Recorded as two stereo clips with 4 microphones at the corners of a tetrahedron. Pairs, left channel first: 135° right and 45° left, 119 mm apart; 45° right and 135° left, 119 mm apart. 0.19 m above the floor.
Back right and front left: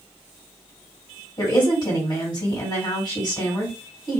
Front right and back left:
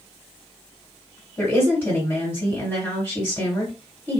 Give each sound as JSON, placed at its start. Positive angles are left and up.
{"t": 1.4, "sound": "a woman speaking", "azimuth_deg": -105, "distance_m": 2.0}